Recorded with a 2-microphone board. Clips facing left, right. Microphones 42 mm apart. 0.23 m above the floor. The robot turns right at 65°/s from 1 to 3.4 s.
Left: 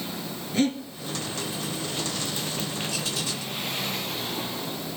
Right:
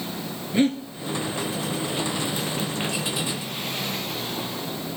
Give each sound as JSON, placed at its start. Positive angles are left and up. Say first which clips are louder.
{"t": 0.5, "sound": "breathing", "louder": "right 3 dB", "side_deg": -20, "distance_m": 0.8}